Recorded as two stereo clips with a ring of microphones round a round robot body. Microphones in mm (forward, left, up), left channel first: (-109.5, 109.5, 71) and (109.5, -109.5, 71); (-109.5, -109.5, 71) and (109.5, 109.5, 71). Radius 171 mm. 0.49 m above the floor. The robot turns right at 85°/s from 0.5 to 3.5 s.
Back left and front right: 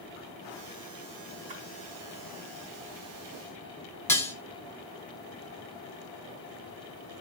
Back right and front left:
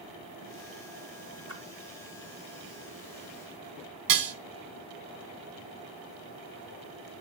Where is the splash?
30° right, 3.5 m; by 1.6 s 20° right, 3.5 m.